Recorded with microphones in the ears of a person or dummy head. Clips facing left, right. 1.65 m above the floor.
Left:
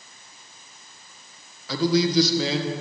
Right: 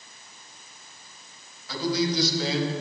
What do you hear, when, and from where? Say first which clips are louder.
1.7 s a man speaking: left 5 dB; 60° left (ahead or behind), 1.8 m